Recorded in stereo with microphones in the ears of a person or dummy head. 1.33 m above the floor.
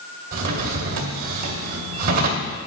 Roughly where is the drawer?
Right.